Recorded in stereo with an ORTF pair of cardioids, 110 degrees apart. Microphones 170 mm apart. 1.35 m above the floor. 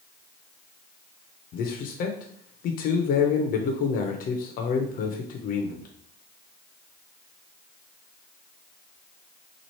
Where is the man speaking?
60° left, 0.7 m.